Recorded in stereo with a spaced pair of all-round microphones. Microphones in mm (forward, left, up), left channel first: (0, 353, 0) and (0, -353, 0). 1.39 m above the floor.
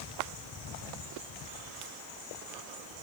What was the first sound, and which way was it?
Only background noise.